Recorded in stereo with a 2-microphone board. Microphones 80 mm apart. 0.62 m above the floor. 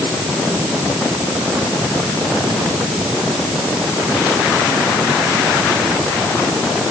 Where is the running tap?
No running tap in this recording.